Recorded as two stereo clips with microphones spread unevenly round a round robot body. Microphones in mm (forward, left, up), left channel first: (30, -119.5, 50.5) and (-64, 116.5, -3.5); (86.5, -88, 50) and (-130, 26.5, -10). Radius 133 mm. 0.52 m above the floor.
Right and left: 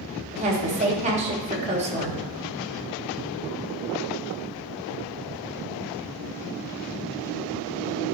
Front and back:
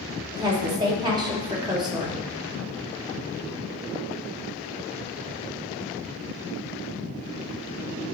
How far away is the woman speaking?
About 1.5 m.